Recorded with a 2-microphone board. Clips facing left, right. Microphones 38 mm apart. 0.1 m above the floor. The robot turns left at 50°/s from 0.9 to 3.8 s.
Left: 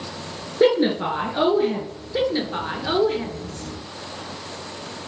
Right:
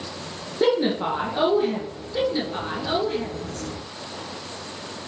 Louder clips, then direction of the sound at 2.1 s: Left 2 dB; 120° left.